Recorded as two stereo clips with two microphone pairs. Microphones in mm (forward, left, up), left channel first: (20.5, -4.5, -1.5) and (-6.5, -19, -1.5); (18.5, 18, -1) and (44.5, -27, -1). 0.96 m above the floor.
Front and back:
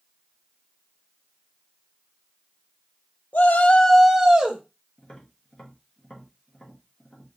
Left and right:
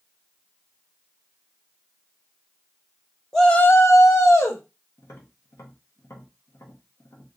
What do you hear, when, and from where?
3.3 s a shout: 35° left, 0.7 m; by 4.6 s 155° left, 1.2 m
5.0 s tapping: 95° left, 1.1 m